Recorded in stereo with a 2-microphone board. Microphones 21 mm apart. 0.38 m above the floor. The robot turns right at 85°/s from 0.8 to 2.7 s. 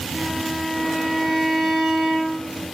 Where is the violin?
165° right, 0.9 m; by 2.5 s 20° right, 0.9 m.